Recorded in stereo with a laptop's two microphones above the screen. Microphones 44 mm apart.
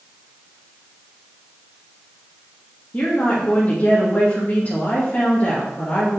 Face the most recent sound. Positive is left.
turn(degrees=40)  # may be behind; listen again after turning